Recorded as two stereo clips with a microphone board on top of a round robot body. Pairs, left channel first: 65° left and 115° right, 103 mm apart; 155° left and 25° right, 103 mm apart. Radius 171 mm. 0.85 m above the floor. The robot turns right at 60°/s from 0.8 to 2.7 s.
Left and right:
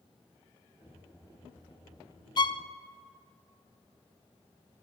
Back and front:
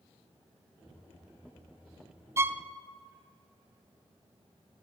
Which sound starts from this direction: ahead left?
A violin, at 2.4 s.